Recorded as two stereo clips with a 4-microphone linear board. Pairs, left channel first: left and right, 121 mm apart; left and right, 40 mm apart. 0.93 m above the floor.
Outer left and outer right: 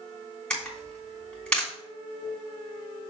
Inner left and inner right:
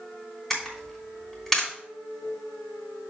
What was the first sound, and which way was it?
A camera shutter, 10° left (ahead or behind).